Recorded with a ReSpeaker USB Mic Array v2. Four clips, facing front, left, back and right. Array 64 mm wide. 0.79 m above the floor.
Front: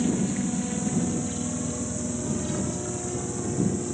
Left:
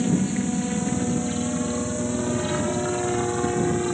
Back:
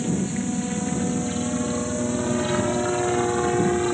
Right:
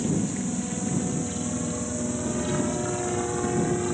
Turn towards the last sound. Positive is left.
turn(degrees=170)